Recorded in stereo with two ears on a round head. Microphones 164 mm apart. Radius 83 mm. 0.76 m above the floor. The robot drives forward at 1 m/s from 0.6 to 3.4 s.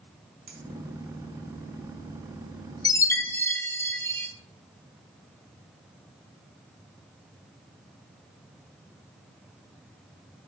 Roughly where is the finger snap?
Right.